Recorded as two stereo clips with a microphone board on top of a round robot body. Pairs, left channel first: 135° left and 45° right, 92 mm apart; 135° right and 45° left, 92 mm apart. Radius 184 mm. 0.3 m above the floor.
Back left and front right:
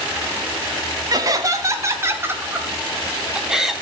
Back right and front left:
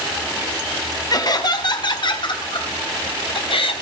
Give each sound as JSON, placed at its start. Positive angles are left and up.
{"t": 1.1, "sound": "laughter", "azimuth_deg": -90, "distance_m": 4.0}